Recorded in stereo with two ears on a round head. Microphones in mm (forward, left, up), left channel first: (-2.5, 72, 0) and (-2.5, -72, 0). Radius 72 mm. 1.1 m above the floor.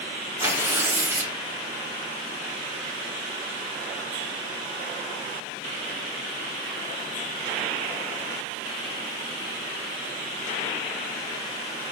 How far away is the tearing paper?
About 0.9 m.